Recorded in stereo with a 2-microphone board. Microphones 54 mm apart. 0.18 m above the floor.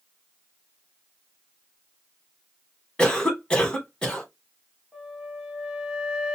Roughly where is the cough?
Centre.